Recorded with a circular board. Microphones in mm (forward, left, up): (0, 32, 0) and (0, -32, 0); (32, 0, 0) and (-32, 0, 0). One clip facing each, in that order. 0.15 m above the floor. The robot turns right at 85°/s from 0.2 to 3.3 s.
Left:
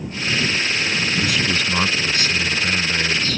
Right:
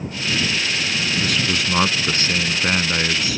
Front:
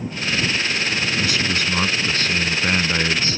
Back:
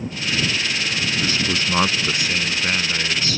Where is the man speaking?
165° left; by 3.4 s 20° right.